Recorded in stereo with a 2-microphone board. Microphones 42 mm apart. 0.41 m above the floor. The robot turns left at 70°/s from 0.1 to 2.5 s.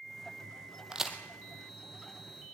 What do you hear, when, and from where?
0.9 s a crack: 20° right (ahead or behind), 2 m; by 1.2 s centre (ahead or behind), 2 m